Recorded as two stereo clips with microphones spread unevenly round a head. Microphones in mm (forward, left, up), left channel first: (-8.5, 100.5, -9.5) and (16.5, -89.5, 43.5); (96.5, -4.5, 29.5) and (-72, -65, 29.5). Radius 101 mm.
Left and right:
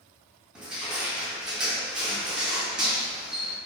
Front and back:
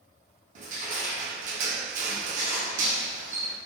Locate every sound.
0.6 s crushing: 150° right, 0.6 m